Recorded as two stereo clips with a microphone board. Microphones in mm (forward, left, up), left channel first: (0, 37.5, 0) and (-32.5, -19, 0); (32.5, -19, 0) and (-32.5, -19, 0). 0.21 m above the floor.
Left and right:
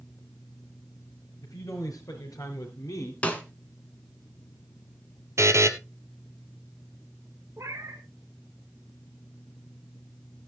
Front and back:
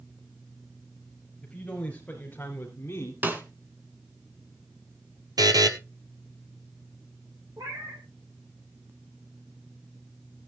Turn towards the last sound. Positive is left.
turn(degrees=-160)